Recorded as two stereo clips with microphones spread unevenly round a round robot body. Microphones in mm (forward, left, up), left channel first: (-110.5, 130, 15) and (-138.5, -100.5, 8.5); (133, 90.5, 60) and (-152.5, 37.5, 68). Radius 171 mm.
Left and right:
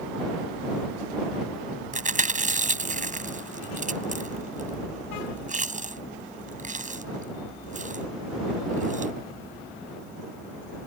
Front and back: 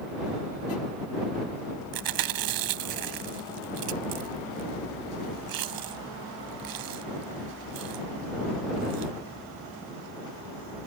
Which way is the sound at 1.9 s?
155° right.